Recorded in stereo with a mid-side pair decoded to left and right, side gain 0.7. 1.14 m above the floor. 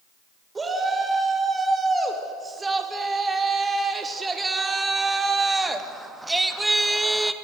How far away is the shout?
About 5 m.